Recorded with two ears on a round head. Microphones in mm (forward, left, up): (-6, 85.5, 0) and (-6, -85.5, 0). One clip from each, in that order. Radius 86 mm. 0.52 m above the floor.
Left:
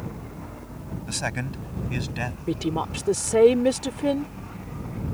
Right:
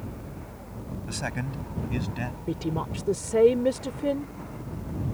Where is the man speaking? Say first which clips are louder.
Left 4 dB; 20° left (ahead or behind); by 2.4 s 35° left (ahead or behind).